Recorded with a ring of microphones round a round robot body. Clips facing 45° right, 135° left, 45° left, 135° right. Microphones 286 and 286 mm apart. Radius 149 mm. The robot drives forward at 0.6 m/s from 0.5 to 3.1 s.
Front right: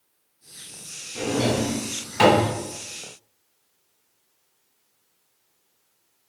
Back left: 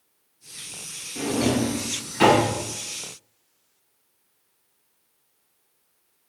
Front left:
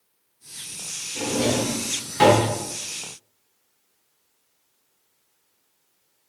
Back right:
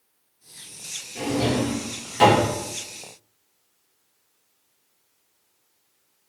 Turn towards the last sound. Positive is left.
turn(degrees=-55)